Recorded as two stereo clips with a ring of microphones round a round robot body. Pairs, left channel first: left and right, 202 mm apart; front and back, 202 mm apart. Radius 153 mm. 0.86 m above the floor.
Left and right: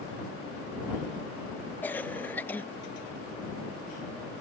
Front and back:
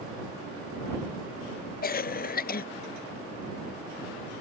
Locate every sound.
1.8 s a cough: 10° left